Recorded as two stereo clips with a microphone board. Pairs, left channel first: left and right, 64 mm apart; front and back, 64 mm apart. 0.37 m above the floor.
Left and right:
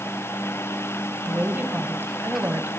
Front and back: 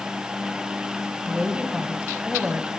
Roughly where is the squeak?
I don't hear a squeak.